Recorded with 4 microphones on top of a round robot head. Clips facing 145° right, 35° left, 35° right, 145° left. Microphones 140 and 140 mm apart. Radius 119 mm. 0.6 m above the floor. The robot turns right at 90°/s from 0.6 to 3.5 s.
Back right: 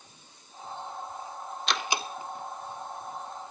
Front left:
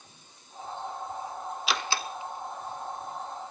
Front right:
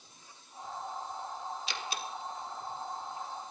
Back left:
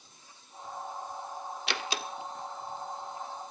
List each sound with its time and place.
1.7 s a door slam: 120° left, 1.2 m; by 3.5 s 75° right, 1.2 m